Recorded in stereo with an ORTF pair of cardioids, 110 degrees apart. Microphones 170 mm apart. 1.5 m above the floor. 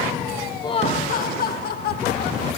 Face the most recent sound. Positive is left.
turn(degrees=70)